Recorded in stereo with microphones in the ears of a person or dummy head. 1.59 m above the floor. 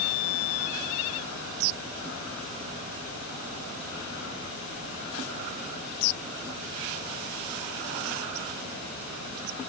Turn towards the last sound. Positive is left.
No sound to turn to.